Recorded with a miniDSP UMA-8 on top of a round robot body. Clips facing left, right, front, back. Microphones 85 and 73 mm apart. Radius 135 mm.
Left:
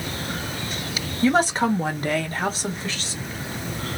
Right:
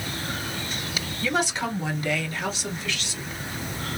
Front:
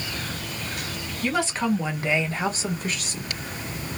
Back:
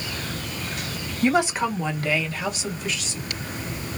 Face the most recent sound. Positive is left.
turn(degrees=30)